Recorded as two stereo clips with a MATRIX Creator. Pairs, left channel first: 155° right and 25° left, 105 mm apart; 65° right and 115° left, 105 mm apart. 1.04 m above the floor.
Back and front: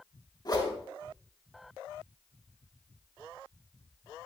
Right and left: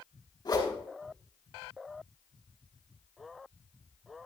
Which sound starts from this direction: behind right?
A whoosh, at 0.5 s.